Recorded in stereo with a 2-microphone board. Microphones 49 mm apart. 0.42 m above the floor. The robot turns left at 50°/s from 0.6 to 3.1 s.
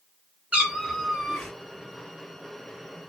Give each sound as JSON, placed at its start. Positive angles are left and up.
{"t": 0.5, "sound": "a cat meowing", "azimuth_deg": -150, "distance_m": 1.8}